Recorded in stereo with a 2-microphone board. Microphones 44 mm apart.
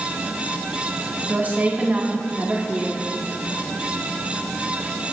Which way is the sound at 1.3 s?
40° right (ahead or behind).